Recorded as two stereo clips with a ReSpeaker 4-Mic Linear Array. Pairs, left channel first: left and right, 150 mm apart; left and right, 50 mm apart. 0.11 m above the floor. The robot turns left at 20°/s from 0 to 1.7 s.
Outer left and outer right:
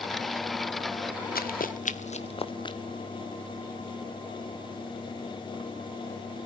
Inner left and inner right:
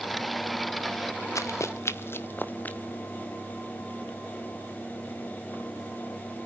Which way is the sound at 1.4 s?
85° left.